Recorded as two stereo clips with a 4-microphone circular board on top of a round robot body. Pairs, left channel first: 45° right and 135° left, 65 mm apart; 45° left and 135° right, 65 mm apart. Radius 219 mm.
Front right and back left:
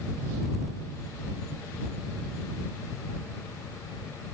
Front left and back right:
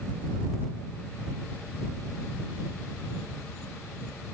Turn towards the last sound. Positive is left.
No sound to turn to.